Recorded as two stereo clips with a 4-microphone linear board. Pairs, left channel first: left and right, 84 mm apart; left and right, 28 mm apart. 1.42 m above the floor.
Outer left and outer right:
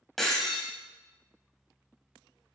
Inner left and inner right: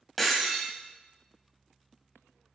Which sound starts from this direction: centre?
Breaking glass, at 0.2 s.